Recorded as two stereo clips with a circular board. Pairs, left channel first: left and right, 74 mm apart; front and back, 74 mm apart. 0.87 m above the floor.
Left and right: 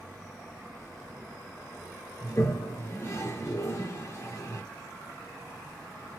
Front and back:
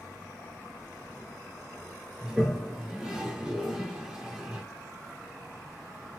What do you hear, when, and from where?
2.2 s a toilet flushing: 100° left, 0.7 m